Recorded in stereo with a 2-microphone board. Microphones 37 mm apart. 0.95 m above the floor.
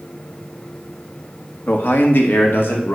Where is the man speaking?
65° left (ahead or behind), 1.6 m; by 3.0 s 70° left (ahead or behind), 2.5 m.